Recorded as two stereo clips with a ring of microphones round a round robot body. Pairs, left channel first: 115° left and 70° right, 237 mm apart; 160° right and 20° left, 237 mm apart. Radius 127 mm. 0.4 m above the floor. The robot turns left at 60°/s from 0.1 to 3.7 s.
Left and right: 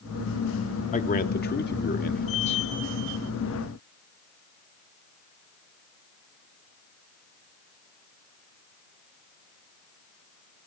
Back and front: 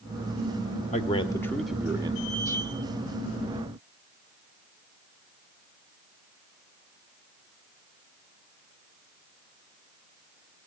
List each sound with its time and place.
0.9 s a man speaking: 155° left, 1.8 m; by 2.6 s 55° left, 1.8 m